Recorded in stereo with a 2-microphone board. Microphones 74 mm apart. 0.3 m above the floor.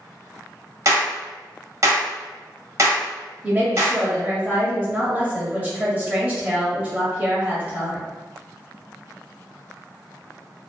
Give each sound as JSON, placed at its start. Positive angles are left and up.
{"t": 0.8, "sound": "a clap", "side_deg": -45, "distance_m": 1.1}
{"t": 3.4, "sound": "a woman speaking", "side_deg": -25, "distance_m": 1.1}